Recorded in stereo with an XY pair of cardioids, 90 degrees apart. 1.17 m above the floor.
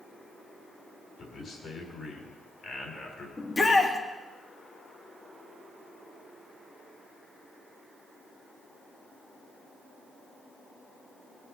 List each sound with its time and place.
1.2 s a man speaking: 55° left, 4.5 m
3.4 s a shout: 30° left, 3 m